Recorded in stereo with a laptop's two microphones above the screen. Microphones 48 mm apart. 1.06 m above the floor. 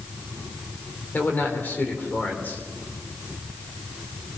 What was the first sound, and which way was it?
A man speaking, 45° left (ahead or behind).